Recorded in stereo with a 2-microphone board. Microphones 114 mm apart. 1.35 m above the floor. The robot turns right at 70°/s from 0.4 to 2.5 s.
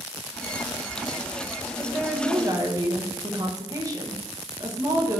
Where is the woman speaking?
160° left, 1.7 m; by 5.2 s 150° right, 1.7 m.